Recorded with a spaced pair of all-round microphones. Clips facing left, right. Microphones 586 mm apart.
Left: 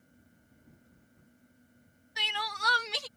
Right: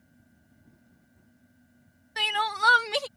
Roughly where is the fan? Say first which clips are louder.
Right 2 dB; centre.